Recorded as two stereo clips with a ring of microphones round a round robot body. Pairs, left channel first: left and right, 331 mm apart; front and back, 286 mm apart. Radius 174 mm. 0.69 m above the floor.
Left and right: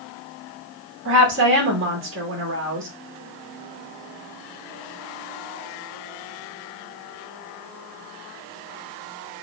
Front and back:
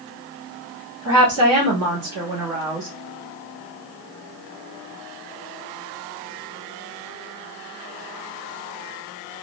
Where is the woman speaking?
145° right, 1.5 m.